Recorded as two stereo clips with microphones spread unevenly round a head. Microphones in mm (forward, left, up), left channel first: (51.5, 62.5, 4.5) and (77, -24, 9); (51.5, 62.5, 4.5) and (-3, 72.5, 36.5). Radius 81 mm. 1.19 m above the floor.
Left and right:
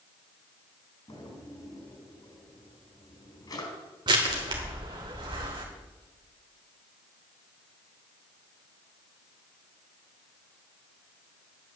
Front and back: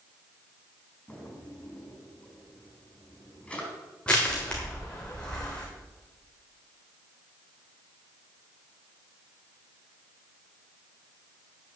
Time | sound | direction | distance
1.1 | a drawer | 65° left | 5 m
4.1 | crushing | 110° right | 1.3 m